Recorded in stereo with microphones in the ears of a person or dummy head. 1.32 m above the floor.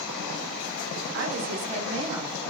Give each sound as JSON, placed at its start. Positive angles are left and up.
{"t": 1.1, "sound": "a woman speaking", "side_deg": -65, "distance_m": 0.9}